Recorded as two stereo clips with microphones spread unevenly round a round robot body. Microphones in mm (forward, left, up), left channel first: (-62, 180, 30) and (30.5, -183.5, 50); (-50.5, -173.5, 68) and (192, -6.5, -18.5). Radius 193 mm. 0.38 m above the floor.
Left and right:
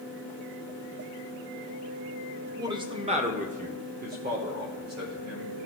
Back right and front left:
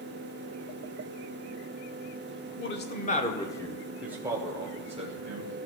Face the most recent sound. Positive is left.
turn(degrees=-10)